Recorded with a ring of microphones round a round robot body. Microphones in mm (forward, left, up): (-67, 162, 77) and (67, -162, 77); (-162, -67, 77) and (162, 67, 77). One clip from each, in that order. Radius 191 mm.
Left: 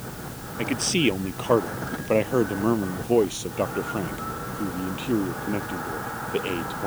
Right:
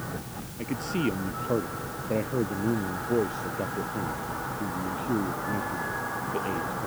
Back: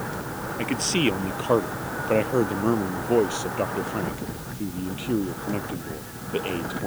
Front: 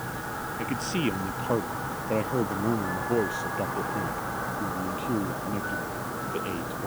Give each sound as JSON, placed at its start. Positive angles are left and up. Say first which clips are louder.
{"t": 0.6, "sound": "a man speaking", "louder": "left 7 dB, back 7 dB", "azimuth_deg": 145}